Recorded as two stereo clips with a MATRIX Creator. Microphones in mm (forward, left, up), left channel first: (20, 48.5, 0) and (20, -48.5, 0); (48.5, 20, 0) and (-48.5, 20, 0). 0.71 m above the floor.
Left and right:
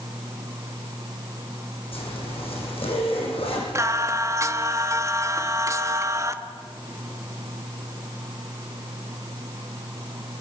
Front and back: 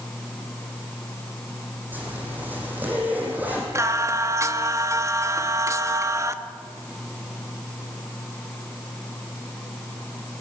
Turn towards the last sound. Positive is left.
turn(degrees=-135)